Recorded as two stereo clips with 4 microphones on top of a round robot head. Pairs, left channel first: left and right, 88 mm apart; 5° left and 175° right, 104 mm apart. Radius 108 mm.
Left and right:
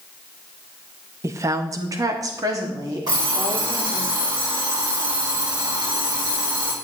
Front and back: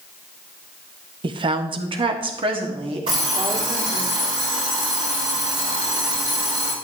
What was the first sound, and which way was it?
A woman speaking, 140° right.